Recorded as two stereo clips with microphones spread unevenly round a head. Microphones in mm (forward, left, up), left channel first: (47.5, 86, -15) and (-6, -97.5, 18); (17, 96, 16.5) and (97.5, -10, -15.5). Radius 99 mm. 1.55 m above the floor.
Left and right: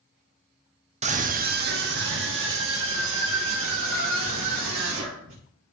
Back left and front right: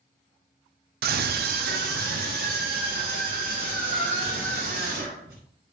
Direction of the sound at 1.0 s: 50° right.